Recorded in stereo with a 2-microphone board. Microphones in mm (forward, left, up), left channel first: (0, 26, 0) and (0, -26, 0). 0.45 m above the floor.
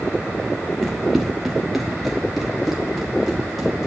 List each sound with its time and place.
0.8 s running footsteps: 5° right (ahead or behind), 1.6 m; by 3.9 s centre (ahead or behind), 4.5 m